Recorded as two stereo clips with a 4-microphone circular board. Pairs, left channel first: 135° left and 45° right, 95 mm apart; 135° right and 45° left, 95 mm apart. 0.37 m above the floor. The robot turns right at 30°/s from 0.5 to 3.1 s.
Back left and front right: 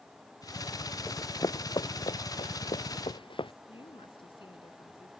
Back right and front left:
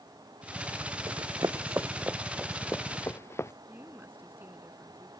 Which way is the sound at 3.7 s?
115° left.